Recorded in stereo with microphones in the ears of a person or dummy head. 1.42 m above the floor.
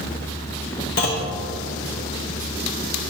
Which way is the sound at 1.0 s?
45° left (ahead or behind).